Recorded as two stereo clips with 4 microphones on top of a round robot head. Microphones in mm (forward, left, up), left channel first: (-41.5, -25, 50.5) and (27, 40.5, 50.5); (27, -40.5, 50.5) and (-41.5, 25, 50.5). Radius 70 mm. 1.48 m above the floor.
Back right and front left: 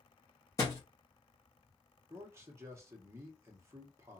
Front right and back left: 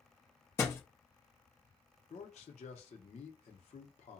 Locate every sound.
0.6 s a thud: 90° right, 0.8 m
2.1 s a man speaking: 20° right, 0.7 m